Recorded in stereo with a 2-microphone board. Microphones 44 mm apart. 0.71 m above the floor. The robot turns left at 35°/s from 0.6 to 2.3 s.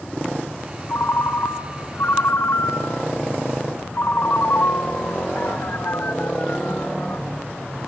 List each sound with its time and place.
0.9 s a ringtone: 110° left, 1.3 m; by 7.2 s 60° left, 1.3 m